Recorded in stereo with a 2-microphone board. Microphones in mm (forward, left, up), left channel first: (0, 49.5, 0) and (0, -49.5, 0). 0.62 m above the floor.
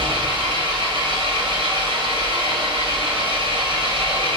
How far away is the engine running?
About 2.0 m.